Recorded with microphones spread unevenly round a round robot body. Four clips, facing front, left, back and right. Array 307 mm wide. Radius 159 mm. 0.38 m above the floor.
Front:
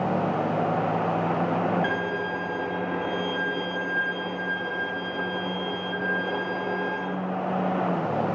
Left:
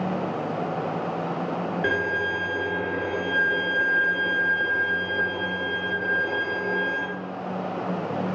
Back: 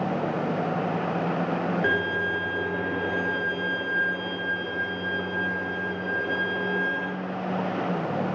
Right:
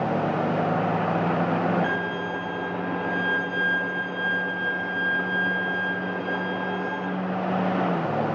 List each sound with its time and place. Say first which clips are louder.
1.8 s a violin: left 2 dB, back 2 dB; 105° left, 6.5 m